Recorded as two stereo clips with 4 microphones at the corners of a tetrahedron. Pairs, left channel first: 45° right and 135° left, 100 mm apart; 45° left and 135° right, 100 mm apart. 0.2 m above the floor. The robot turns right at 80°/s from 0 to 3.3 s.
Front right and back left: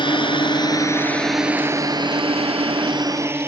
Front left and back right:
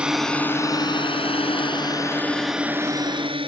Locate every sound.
0.0 s a drone: 60° right; by 3.5 s 160° right